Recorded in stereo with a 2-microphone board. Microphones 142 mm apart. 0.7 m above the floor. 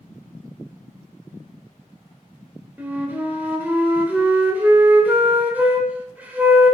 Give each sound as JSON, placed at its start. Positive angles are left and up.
{"t": 2.8, "sound": "a flute", "side_deg": -10, "distance_m": 0.6}